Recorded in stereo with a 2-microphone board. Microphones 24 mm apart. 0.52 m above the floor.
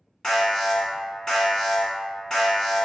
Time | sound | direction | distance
0.2 | an alarm | 25° left (ahead or behind) | 1.0 m